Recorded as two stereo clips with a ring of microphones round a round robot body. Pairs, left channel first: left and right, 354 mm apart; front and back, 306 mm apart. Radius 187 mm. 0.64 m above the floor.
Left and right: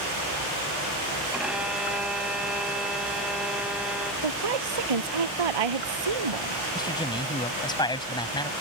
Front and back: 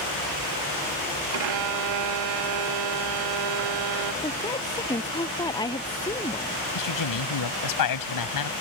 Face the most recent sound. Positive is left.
turn(degrees=10)